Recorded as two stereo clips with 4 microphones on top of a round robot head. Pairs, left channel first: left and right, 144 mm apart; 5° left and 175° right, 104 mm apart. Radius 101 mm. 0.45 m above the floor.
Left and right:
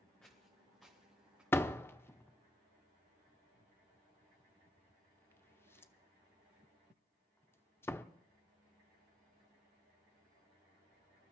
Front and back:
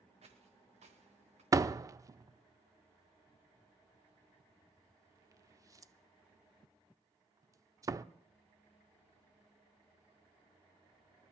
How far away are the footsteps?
About 3.5 m.